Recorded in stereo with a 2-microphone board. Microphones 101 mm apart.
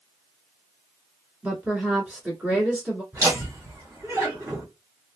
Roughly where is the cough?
I don't hear a cough.